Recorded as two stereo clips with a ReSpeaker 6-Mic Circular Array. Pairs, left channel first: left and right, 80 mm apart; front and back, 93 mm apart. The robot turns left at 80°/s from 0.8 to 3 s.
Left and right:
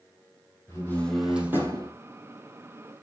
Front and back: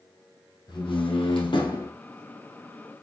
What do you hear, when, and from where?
0.7 s a door slam: 35° left, 4 m; by 1.9 s 55° right, 4 m